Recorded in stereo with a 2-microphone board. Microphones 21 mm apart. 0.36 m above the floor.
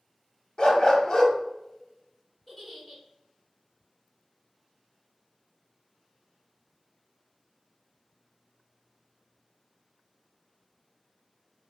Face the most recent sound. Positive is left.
turn(degrees=0)  # may be behind; listen again after turning